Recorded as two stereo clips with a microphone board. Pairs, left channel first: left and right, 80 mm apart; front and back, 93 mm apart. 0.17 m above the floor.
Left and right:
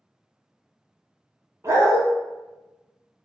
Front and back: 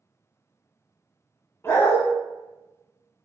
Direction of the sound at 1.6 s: 55° right.